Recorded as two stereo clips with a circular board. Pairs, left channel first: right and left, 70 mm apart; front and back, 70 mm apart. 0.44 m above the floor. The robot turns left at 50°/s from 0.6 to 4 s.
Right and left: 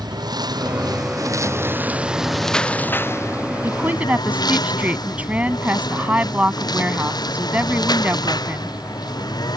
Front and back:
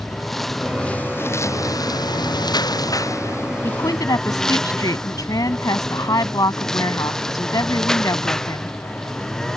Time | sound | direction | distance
0.0 | a lawn mower | 85° left | ?
3.6 | a woman speaking | 40° left | ?